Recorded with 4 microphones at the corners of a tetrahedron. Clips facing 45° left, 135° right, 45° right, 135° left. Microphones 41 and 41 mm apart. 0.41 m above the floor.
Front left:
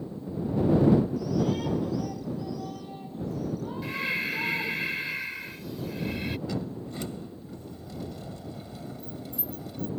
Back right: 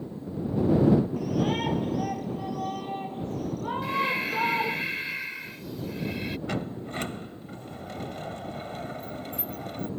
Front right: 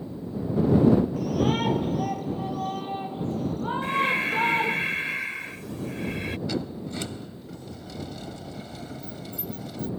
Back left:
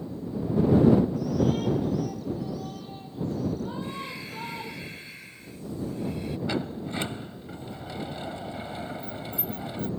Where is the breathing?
45° right.